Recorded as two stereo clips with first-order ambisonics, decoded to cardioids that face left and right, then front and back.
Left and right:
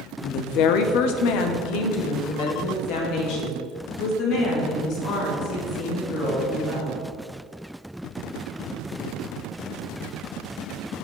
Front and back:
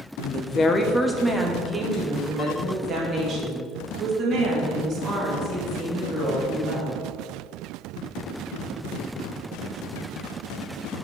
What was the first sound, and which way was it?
A woman speaking, 50° left.